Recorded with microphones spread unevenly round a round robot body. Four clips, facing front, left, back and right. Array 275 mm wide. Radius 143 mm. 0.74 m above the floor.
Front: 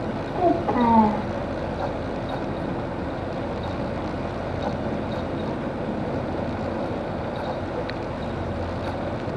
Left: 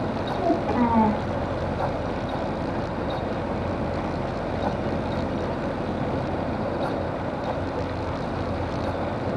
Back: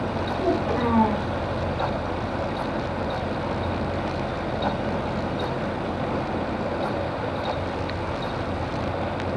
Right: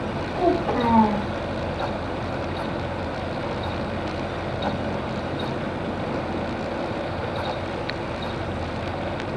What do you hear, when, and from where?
0.3 s a child speaking: 35° right, 1.9 m